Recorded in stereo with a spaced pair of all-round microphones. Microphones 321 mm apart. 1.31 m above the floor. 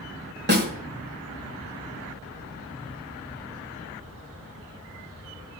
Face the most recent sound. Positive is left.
turn(degrees=-30)  # may be behind; listen again after turning